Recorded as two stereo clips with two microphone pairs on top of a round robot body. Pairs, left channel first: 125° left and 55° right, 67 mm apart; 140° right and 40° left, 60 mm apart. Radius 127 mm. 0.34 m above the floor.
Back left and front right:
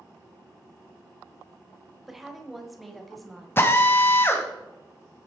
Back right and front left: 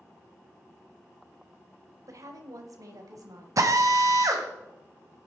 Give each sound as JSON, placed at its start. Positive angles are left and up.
{"t": 2.1, "sound": "a woman speaking", "azimuth_deg": 30, "distance_m": 2.0}
{"t": 3.6, "sound": "a drill", "azimuth_deg": 70, "distance_m": 1.9}